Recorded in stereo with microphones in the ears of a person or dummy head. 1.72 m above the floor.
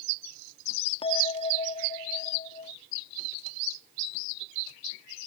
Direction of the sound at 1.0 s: 30° left (ahead or behind).